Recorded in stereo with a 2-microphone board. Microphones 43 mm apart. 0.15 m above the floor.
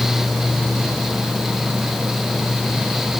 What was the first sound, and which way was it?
Only background noise.